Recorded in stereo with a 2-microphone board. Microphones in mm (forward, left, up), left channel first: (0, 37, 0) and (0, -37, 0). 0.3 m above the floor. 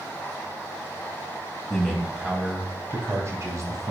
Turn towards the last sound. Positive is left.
turn(degrees=-50)  # may be behind; listen again after turning